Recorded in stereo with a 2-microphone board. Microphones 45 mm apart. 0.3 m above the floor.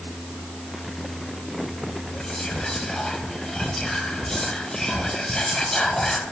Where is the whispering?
15° left (ahead or behind), 0.9 m.